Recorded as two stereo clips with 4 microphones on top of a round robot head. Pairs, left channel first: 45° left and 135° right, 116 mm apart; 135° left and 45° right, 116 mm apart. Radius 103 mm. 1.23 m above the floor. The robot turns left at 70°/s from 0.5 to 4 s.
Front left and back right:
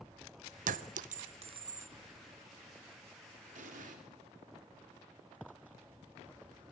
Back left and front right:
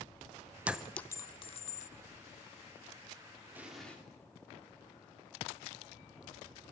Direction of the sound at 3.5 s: 115° right.